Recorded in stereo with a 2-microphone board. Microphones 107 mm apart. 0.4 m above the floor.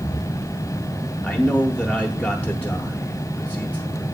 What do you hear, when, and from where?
1.2 s a man speaking: 15° left (ahead or behind), 0.9 m